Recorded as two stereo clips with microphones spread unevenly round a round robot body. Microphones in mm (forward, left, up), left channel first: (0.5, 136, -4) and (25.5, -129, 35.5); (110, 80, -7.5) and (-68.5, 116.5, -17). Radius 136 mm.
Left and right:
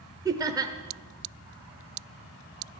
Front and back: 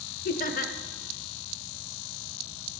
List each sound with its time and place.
0.2 s laughter: 5° right, 1.1 m